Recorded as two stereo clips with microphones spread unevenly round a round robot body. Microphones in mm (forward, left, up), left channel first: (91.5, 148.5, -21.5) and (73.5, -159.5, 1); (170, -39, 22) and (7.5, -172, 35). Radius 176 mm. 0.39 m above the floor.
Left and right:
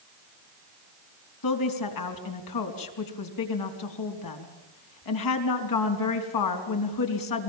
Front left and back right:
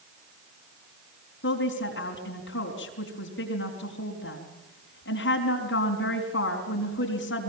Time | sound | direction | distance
1.4 | a woman speaking | 85° left | 4.5 m